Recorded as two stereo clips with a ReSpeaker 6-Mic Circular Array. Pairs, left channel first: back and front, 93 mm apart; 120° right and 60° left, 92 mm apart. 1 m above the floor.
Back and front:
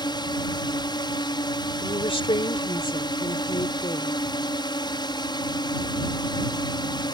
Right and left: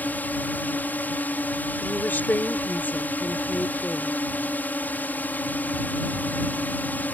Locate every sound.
0.0 s a drone: 175° left
1.8 s a woman speaking: 170° left